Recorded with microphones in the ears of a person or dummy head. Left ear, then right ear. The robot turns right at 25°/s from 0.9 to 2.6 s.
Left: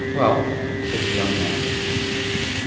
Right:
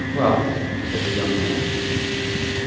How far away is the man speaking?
About 1.2 m.